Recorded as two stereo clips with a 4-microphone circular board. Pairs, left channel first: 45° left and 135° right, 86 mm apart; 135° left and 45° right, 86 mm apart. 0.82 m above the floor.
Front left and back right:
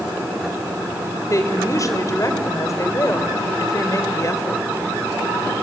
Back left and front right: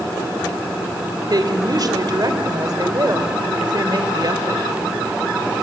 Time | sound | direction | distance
1.3 | a woman speaking | 5° right | 2.5 m